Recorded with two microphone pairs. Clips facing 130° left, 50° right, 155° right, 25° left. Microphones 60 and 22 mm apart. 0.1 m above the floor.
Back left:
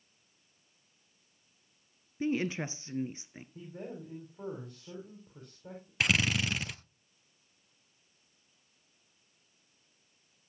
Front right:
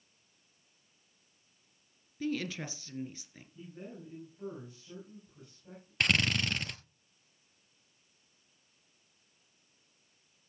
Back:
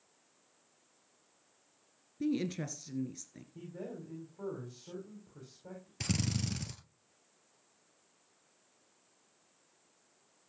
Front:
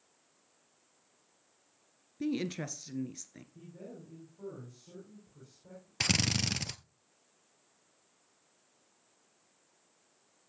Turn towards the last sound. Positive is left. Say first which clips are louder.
# even, front 6 dB
turn(degrees=50)